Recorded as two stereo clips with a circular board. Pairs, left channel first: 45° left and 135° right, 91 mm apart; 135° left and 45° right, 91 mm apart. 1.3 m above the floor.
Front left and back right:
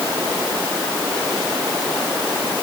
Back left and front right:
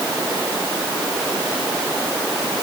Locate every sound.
Only background noise.